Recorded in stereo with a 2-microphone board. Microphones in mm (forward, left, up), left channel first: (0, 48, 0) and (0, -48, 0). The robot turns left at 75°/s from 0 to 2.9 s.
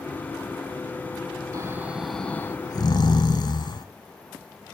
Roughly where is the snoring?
Behind right.